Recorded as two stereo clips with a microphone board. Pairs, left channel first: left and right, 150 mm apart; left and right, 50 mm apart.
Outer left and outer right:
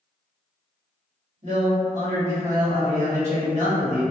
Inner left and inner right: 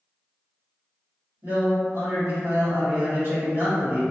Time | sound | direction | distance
1.4 | a man speaking | 50° right (ahead or behind) | 1.4 m